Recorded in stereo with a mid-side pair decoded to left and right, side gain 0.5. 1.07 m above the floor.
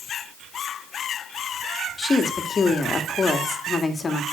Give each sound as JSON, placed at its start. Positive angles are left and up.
{"t": 2.0, "sound": "a woman speaking", "azimuth_deg": 35, "distance_m": 2.5}